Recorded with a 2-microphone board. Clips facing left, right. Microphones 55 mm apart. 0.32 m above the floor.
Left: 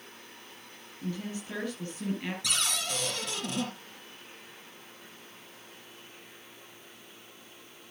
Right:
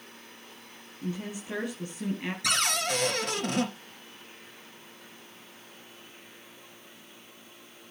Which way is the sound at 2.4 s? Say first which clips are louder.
Right 7 dB; 60° right (ahead or behind).